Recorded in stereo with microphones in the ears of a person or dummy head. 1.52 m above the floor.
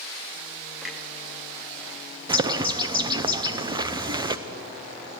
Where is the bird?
25° right (ahead or behind), 0.6 m.